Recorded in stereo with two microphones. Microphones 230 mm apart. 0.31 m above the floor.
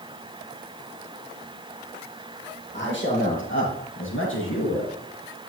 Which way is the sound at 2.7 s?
55° left (ahead or behind).